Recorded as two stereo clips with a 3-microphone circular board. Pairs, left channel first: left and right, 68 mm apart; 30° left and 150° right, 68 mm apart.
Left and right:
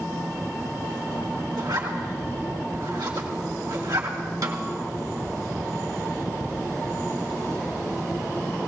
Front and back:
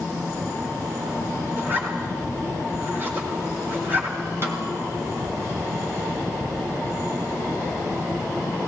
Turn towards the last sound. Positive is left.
turn(degrees=-105)